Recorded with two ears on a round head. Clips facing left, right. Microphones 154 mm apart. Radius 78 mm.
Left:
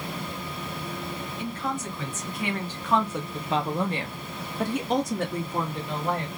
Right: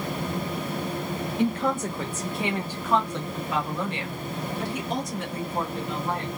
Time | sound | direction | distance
1.4 | a woman speaking | 50° right (ahead or behind) | 1.2 m